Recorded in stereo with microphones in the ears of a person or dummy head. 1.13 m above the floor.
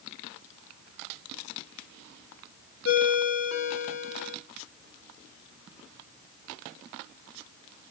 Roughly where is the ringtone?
Left.